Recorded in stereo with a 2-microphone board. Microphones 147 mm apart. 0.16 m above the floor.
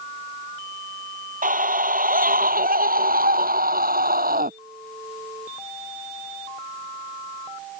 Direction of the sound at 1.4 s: 65° right (ahead or behind).